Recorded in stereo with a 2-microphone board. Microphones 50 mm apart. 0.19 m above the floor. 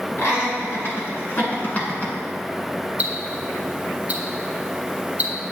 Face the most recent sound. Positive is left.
turn(degrees=-30)  # may be behind; listen again after turning